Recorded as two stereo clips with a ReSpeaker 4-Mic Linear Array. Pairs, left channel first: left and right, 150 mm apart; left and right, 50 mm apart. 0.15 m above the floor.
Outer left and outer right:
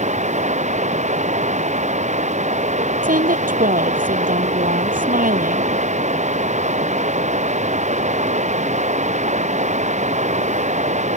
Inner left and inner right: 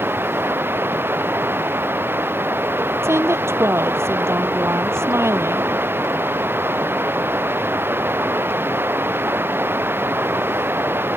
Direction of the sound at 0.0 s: 50° right (ahead or behind).